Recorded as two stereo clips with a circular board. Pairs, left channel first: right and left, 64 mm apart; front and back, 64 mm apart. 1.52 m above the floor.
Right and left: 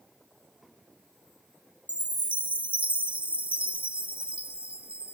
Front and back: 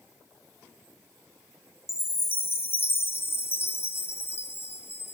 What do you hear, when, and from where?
1.9 s a chime: 30° left, 0.9 m